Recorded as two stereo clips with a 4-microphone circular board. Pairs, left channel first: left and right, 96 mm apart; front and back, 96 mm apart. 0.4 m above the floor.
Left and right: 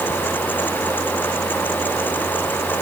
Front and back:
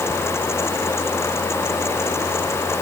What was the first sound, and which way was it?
Only background noise.